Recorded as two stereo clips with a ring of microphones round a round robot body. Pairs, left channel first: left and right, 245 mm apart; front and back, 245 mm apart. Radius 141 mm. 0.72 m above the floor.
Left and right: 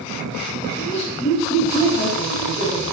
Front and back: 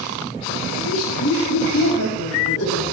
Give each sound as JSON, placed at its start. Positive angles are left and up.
{"t": 0.8, "sound": "laughter", "azimuth_deg": 25, "distance_m": 4.0}